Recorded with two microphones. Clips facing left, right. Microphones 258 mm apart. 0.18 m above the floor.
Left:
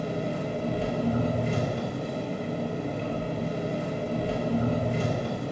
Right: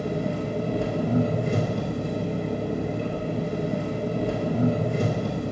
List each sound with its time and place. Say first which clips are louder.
0.0 s an engine running: right 3 dB; 50° right (ahead or behind), 0.9 m